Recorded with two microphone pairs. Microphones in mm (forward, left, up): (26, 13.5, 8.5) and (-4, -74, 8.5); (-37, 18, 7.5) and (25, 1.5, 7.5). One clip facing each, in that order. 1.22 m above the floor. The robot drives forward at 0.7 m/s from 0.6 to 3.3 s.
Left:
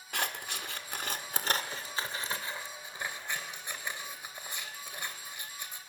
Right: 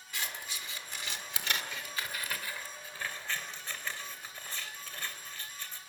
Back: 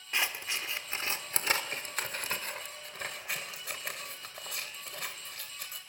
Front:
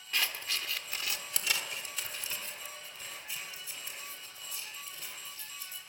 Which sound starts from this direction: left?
Scissors, at 0.1 s.